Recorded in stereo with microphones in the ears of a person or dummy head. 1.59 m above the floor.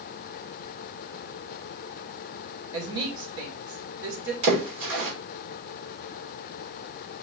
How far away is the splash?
About 2 m.